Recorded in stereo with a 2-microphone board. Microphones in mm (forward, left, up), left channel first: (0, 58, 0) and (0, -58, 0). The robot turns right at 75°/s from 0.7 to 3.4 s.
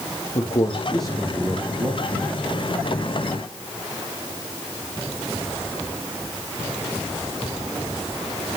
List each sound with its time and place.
0.3 s a man speaking: 125° left, 4.5 m; by 2.3 s 115° right, 4.5 m